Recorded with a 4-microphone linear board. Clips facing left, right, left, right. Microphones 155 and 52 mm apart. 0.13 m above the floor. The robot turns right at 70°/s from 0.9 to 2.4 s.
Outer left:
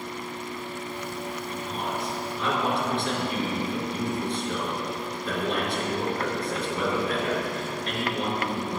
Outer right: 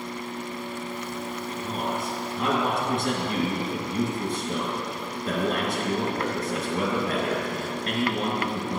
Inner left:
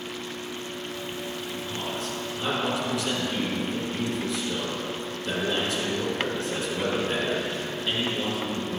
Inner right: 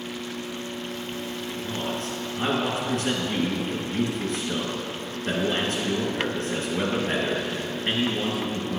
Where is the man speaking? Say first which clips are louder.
Outer right 3 dB, inner right 4 dB; 135° right, 1.9 m; by 8.8 s 70° right, 1.9 m.